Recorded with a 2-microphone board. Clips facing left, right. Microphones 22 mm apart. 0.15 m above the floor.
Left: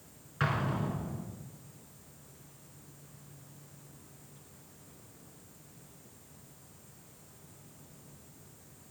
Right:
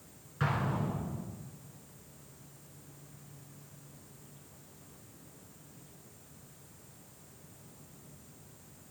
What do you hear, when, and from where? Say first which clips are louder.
0.4 s an explosion: left 1 dB; 25° left (ahead or behind), 1.8 m